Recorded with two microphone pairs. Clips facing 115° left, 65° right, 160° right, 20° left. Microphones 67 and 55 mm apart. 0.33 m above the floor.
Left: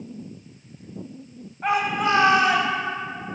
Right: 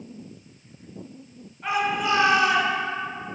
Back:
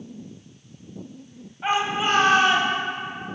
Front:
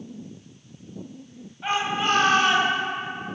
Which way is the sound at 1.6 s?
135° left.